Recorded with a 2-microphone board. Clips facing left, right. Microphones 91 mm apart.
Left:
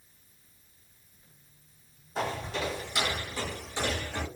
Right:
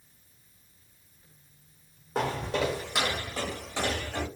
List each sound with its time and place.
2.1 s footsteps: 65° right (ahead or behind), 1.0 m; by 4.2 s 60° right (ahead or behind), 2.0 m